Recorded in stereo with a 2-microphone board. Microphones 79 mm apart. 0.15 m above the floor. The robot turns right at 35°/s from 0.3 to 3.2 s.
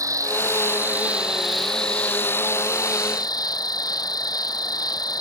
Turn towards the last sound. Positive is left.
turn(degrees=55)